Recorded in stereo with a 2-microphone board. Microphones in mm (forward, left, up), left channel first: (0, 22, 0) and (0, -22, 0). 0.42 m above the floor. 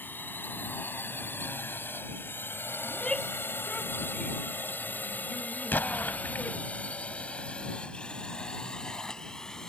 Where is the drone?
50° left (ahead or behind); by 9.7 s 10° left (ahead or behind).